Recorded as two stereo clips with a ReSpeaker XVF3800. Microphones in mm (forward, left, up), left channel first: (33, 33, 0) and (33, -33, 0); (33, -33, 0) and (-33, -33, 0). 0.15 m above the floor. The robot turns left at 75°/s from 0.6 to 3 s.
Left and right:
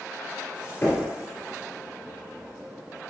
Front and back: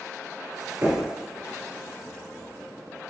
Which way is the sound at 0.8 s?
140° left.